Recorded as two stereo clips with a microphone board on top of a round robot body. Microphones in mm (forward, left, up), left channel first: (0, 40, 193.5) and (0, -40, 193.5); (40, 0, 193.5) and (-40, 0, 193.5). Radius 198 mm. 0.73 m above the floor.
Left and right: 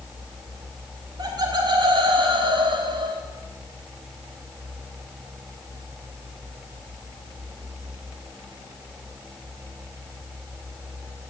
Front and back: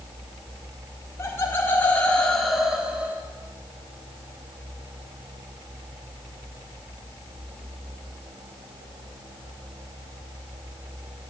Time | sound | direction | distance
1.2 | laughter | 60° right | 2.5 m